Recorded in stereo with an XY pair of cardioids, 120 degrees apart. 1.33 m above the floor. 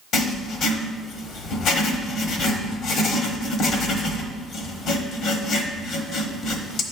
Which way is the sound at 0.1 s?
65° left.